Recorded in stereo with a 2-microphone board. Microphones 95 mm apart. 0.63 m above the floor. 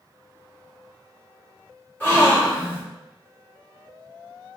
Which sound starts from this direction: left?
A gasp, at 2.0 s.